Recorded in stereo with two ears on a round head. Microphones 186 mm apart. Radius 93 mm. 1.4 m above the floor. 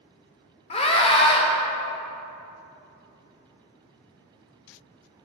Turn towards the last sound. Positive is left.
turn(degrees=30)  # may be behind; listen again after turning